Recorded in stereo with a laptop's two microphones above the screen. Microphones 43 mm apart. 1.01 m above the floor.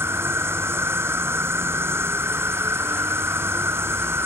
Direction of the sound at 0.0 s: 75° right (ahead or behind).